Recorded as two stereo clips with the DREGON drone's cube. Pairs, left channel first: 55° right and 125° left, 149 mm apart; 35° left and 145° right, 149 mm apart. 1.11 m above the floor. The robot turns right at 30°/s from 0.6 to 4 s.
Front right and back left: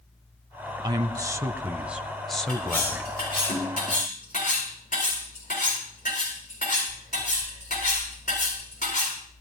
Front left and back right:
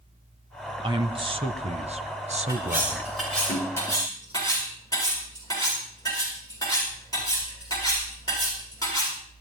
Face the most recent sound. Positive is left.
turn(degrees=-30)